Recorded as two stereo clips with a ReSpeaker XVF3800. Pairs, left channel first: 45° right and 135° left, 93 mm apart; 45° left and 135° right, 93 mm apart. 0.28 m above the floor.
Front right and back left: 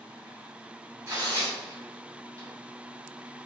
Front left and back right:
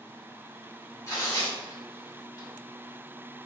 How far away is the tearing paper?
About 2.0 m.